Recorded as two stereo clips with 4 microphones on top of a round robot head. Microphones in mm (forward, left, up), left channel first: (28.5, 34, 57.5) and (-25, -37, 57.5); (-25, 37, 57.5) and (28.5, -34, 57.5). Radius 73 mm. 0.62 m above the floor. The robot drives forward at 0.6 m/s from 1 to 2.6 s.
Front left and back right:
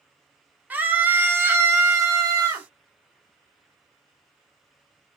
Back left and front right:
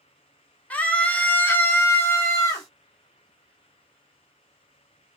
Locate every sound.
0.7 s a scream: 175° right, 1.0 m; by 2.7 s straight behind, 1.7 m